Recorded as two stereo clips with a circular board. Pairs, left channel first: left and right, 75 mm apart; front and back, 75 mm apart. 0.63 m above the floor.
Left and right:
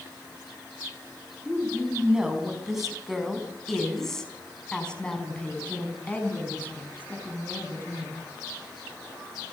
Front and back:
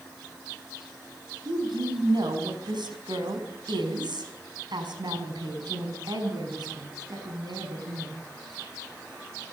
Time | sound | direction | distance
1.4 | a woman speaking | 170° right | 5.5 m